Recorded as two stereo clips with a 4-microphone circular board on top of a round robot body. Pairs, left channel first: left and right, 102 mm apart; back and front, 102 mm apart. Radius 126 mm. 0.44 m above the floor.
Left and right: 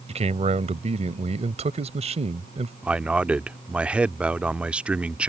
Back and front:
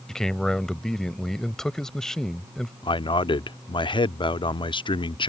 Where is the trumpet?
No trumpet in this recording.